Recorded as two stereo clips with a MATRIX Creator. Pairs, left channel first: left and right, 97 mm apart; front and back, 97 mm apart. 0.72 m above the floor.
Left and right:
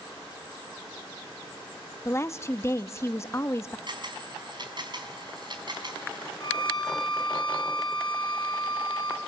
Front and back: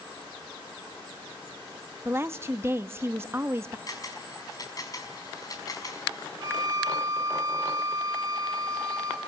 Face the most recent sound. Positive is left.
turn(degrees=130)